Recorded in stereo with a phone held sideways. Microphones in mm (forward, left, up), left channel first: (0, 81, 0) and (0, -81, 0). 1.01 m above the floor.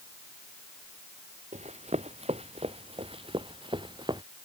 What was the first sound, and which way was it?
Running footsteps, 45° right (ahead or behind).